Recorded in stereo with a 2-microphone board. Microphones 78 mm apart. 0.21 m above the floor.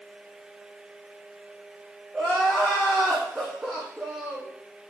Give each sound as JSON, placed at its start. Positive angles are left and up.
{"t": 2.1, "sound": "crying", "side_deg": 0, "distance_m": 3.5}